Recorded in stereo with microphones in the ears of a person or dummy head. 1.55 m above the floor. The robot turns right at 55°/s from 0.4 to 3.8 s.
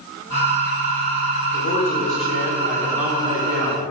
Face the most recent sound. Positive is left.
turn(degrees=-125)